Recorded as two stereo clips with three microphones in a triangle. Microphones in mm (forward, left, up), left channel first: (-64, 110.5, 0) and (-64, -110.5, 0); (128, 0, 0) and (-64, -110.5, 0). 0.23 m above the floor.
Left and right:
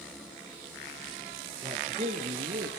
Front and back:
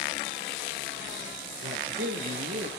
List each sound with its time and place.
1.6 s a man speaking: 150° right, 4 m; by 2.7 s 130° right, 4 m